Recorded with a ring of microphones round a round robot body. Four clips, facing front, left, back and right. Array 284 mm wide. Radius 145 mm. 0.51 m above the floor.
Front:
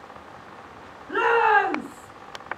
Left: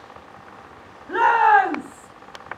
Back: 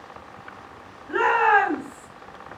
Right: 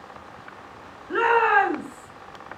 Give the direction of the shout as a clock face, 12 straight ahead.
9 o'clock.